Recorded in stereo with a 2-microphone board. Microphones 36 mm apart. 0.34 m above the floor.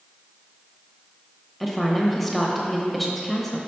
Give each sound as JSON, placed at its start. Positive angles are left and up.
{"t": 1.6, "sound": "a woman speaking", "side_deg": 5, "distance_m": 1.1}